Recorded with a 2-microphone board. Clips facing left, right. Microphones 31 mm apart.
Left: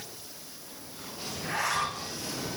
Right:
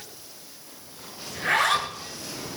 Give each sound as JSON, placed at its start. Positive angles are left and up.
{"t": 1.3, "sound": "a zipper", "side_deg": -80, "distance_m": 7.0}